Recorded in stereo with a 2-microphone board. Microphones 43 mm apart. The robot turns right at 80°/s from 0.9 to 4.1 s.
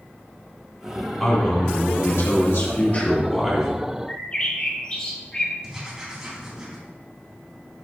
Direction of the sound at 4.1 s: 25° left (ahead or behind).